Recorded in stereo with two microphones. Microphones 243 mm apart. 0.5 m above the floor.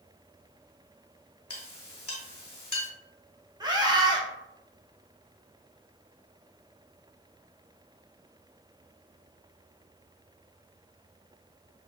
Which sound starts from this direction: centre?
A scream, at 3.6 s.